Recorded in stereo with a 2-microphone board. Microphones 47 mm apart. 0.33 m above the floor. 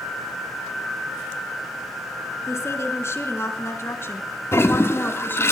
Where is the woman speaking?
70° left (ahead or behind), 4 m; by 5.5 s 45° left (ahead or behind), 3 m.